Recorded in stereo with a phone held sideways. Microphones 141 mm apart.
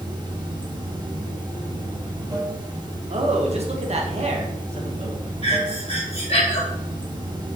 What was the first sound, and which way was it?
Running water, 30° right (ahead or behind).